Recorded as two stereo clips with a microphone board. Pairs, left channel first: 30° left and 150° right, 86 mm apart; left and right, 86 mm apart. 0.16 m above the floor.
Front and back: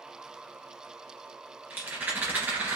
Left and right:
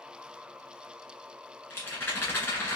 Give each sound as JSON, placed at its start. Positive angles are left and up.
{"t": 1.7, "sound": "a rattle", "azimuth_deg": 140, "distance_m": 2.0}